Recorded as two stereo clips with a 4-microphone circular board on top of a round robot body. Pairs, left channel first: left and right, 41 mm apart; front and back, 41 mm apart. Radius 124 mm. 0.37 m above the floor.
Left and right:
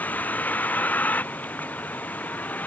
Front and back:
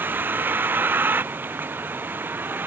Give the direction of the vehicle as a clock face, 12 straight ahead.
7 o'clock.